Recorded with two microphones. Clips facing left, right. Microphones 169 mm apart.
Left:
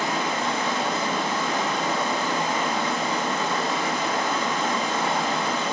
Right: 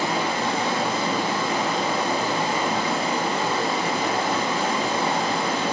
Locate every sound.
0.0 s running water: 30° right (ahead or behind), 8.5 m